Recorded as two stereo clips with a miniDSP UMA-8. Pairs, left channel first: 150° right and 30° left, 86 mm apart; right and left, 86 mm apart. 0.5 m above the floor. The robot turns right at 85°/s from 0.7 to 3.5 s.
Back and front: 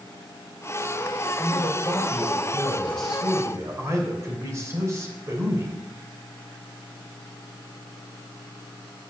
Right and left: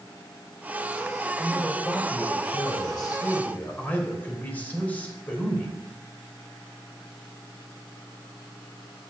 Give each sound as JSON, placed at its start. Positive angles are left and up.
{"t": 1.4, "sound": "a man speaking", "azimuth_deg": 160, "distance_m": 2.5}